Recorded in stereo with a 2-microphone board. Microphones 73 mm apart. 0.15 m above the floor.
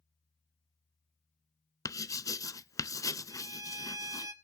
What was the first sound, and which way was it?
Writing, 50° left (ahead or behind).